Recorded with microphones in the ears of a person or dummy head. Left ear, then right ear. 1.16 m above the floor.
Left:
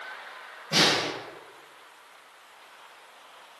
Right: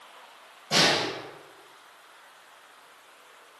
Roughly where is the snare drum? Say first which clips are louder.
Even; right.